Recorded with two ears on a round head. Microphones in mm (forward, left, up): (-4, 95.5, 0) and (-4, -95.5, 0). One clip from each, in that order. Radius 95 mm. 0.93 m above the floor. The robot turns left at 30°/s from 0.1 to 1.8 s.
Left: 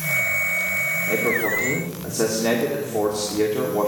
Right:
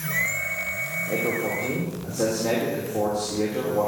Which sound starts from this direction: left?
A man speaking, at 1.1 s.